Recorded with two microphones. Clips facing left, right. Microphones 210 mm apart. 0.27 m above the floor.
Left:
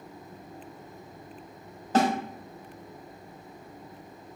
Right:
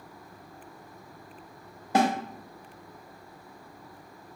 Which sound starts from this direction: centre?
A snare drum, at 1.9 s.